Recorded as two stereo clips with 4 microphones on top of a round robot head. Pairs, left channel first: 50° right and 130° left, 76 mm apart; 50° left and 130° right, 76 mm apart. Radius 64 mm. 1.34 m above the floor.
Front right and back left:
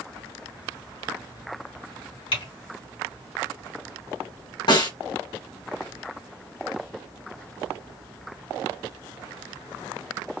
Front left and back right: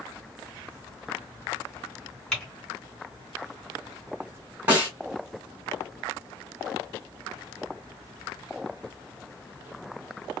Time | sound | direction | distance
2.3 | typing on a keyboard | 40° right | 3 m
4.7 | a snare drum | 60° right | 2.5 m